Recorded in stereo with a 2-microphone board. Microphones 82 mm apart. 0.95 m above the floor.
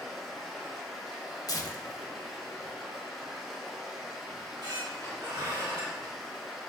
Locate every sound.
0.0 s running water: centre (ahead or behind), 1.6 m
1.5 s tearing paper: 50° left (ahead or behind), 0.8 m
4.3 s a squeak: 70° right (ahead or behind), 3 m